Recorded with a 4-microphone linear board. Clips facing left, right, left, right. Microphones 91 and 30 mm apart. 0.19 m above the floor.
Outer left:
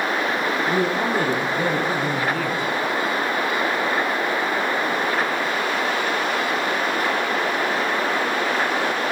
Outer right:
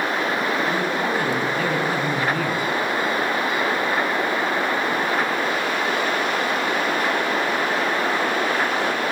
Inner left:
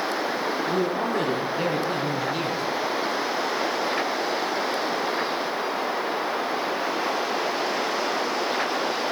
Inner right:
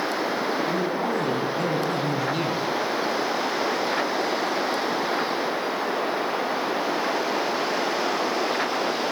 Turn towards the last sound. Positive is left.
turn(degrees=-10)  # may be behind; listen again after turning